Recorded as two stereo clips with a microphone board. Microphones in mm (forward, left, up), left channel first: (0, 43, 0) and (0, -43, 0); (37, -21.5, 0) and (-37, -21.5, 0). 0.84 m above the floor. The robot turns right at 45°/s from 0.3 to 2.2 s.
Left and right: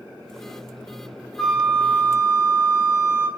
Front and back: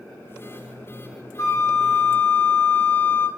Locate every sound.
1.4 s a flute: 5° left, 1.4 m; by 3.3 s 40° left, 1.4 m